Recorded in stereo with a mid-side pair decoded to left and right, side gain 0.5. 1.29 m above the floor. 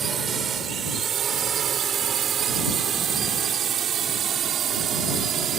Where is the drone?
50° right; by 5.6 s 60° right.